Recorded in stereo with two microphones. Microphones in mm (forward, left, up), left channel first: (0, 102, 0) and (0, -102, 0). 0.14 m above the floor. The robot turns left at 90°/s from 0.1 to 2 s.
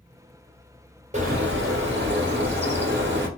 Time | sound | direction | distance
1.1 | a bird | 35° right | 1.3 m